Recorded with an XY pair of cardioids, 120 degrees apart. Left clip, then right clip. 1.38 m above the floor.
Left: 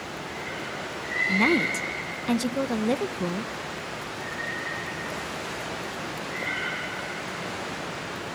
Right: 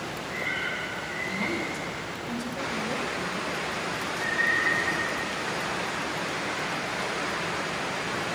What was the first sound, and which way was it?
A woman speaking, 60° left.